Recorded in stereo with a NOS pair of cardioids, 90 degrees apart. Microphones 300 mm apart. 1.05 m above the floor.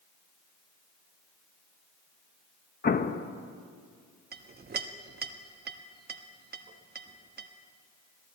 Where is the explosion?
30° left, 0.8 m.